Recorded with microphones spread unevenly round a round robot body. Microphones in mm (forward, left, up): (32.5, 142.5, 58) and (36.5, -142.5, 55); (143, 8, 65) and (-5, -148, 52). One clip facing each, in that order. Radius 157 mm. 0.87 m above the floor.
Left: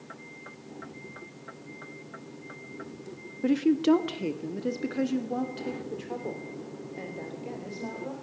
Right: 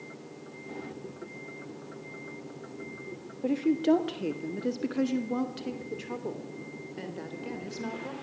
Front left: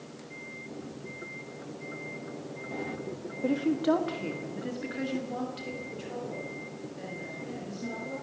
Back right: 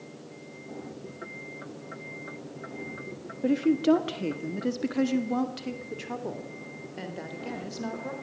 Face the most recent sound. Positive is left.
turn(degrees=-155)